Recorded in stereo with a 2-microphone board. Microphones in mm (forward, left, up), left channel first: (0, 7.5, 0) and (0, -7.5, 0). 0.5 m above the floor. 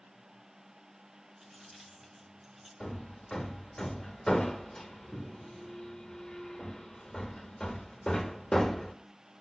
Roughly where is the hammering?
Left.